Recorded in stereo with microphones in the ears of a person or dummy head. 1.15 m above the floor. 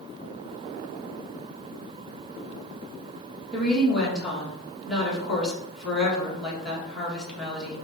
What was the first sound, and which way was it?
A woman speaking, centre (ahead or behind).